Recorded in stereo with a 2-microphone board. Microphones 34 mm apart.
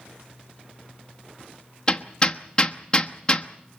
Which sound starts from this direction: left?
Hammering, at 1.9 s.